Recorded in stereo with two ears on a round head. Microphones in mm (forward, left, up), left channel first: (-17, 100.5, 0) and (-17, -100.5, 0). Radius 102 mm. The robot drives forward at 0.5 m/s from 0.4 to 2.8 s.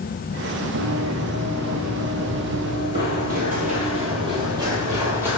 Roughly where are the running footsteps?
Right.